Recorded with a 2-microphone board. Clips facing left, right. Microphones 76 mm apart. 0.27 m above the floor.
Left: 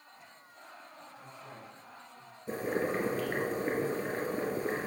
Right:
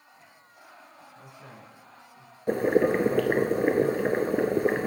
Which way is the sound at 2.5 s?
85° right.